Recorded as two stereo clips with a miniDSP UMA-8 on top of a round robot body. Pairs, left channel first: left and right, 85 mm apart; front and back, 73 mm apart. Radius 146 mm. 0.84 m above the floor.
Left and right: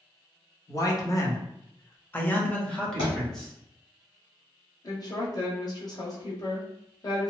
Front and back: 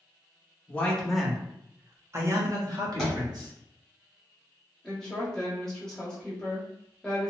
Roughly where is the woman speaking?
Left.